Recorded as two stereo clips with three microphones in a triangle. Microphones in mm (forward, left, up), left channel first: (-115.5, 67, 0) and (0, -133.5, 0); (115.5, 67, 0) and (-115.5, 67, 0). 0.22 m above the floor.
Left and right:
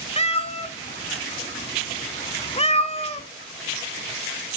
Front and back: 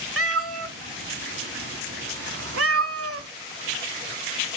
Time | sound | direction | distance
0.2 | a cat meowing | 175° right | 0.6 m